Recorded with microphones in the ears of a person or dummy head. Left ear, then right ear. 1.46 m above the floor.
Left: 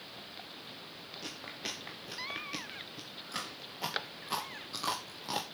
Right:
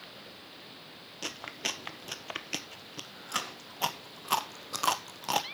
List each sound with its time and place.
1.2 s chewing: 35° right (ahead or behind), 0.9 m